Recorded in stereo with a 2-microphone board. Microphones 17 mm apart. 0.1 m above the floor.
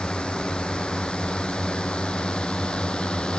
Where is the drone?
75° left (ahead or behind); by 3.4 s 70° left (ahead or behind).